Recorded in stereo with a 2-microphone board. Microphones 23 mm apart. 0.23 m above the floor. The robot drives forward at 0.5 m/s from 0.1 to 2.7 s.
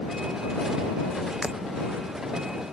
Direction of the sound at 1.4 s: 45° right (ahead or behind).